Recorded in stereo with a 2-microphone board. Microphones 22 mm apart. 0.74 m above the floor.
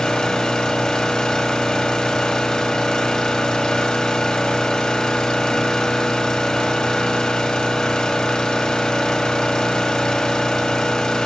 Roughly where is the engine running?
Left.